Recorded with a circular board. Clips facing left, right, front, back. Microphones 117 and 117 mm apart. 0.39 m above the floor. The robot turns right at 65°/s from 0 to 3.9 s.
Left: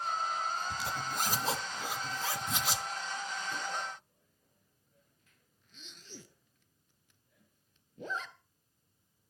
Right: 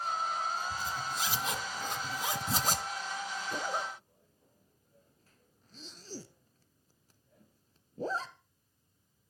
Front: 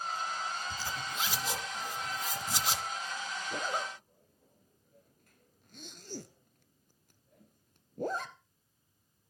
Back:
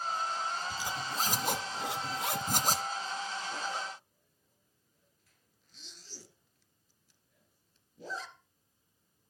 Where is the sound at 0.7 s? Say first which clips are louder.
Even, back 2 dB; 95° left, 1.7 m; by 2.9 s 125° right, 1.7 m.